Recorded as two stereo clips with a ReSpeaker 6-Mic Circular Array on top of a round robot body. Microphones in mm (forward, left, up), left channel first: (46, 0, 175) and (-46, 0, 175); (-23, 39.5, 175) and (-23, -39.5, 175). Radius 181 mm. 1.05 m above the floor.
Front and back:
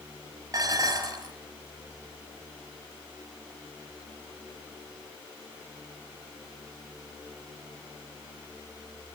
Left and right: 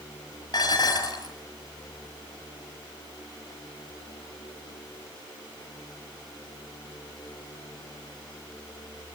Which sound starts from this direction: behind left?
Dishes clattering, at 0.5 s.